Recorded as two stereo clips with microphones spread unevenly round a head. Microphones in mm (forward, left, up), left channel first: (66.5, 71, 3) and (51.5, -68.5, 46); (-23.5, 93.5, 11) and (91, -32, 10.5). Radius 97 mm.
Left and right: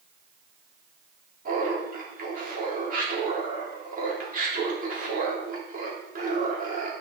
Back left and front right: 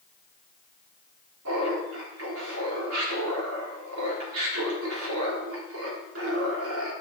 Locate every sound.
1.4 s laughter: 65° right, 3.5 m